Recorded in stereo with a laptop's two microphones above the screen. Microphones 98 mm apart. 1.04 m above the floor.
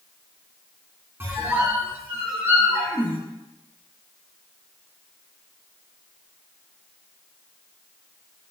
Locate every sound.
1.2 s a squeak: 25° right (ahead or behind), 1.2 m